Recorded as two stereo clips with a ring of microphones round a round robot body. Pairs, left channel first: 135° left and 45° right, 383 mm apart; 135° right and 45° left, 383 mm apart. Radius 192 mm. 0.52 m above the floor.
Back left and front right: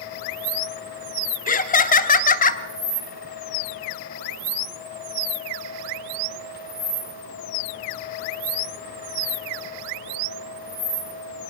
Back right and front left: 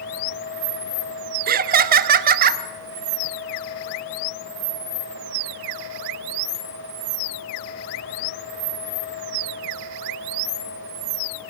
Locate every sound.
1.5 s laughter: 85° left, 0.8 m